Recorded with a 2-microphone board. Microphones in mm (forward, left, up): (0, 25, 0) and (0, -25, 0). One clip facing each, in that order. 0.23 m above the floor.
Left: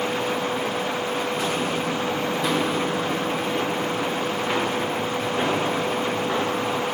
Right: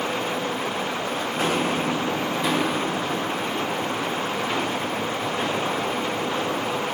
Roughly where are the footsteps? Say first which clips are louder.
Right 1 dB; right.